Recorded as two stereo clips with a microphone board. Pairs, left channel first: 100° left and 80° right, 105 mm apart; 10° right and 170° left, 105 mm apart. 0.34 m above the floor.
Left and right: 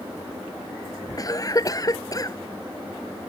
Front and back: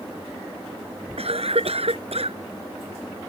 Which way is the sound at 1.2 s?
155° left.